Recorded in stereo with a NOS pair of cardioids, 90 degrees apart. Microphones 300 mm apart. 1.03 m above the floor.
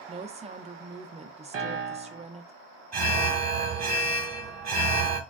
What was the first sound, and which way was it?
A woman speaking, 20° right.